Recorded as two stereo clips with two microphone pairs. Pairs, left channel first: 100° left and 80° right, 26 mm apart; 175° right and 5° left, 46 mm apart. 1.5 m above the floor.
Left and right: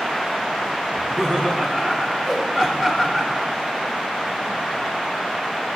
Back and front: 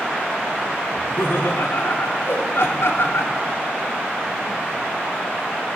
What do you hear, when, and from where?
0.9 s laughter: 175° left, 1.1 m
2.2 s a whoosh: 175° right, 1.5 m